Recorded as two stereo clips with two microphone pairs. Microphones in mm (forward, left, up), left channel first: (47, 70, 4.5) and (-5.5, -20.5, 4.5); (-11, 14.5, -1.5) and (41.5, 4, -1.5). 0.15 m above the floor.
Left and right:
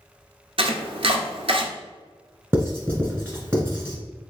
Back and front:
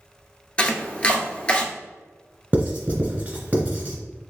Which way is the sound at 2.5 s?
55° right.